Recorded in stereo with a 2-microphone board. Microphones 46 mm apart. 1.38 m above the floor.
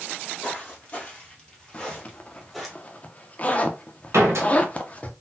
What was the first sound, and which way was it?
Footsteps, 30° left (ahead or behind).